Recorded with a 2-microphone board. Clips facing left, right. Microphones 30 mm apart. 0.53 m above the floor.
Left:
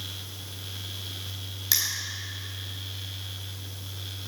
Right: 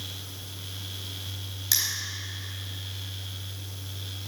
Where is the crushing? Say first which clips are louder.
Even; 10° left (ahead or behind), 3.5 m.